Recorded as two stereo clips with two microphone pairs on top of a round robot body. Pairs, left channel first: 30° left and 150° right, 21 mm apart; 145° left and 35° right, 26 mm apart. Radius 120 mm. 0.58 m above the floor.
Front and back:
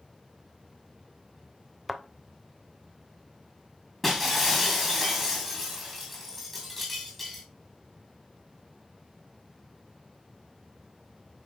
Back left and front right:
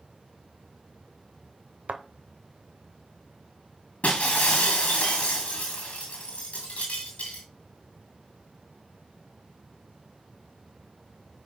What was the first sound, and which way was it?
A thud, 65° right.